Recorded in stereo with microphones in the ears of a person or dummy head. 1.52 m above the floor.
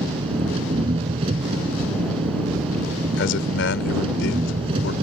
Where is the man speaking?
80° left.